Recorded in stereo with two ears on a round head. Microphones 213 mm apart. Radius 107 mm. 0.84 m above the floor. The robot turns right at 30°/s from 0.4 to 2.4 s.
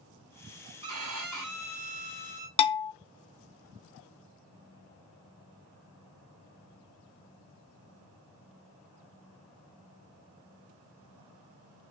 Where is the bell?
25° left (ahead or behind), 0.7 m.